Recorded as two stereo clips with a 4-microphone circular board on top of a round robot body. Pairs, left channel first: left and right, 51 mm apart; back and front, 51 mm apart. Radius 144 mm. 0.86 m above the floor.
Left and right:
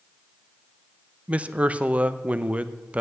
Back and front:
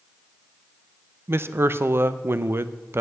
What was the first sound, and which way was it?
A man speaking, 30° right.